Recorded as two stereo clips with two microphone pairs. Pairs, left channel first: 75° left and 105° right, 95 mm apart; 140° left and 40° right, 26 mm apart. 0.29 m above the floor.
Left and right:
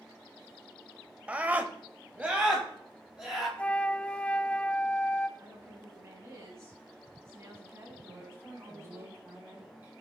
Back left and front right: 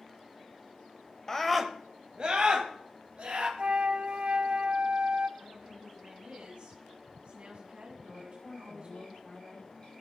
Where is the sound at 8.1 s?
175° right, 5 m.